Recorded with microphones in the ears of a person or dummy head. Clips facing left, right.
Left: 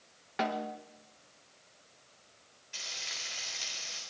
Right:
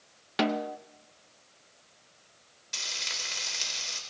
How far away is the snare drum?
About 0.7 m.